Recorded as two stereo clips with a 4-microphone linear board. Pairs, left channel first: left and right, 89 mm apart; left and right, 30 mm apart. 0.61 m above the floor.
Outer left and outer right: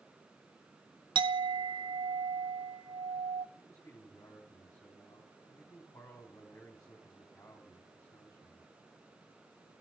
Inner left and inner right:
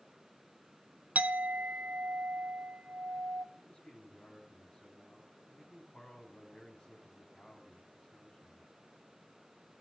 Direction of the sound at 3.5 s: 35° left (ahead or behind).